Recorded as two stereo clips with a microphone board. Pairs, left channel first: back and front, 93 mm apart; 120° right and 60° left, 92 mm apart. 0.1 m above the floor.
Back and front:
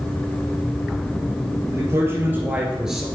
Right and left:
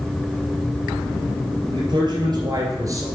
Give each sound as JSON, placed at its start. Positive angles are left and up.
{"t": 1.7, "sound": "a man speaking", "azimuth_deg": 50, "distance_m": 3.0}